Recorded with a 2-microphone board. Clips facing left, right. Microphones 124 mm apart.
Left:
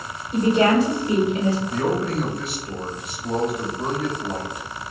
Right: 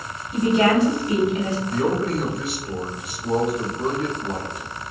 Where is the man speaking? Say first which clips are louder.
Right 1 dB; centre (ahead or behind), 1.3 m.